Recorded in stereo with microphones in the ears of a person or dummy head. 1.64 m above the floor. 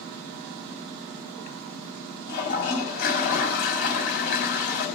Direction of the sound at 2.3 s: 60° left (ahead or behind).